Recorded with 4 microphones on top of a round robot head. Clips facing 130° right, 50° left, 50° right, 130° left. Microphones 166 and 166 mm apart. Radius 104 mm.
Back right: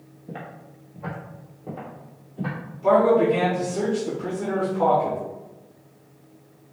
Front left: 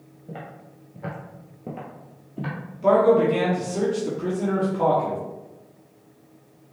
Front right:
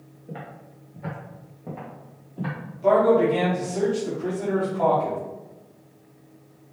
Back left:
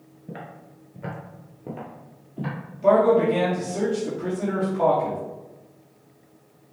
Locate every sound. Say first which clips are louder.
0.3 s footsteps: back right 1 dB, even; 145° left, 1.2 m; by 2.6 s 65° left, 2.0 m
2.8 s a man speaking: even, even; 60° left, 1.6 m